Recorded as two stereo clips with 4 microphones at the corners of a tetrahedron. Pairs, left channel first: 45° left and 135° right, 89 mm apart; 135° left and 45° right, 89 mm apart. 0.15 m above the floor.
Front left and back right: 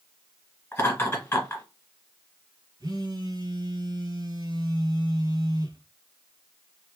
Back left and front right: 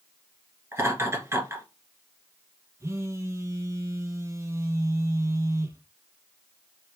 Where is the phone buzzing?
100° right, 0.7 m.